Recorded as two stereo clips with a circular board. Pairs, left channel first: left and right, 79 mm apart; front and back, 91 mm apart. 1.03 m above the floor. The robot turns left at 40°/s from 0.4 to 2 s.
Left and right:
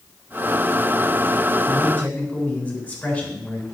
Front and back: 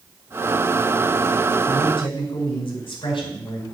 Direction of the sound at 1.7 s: 30° left.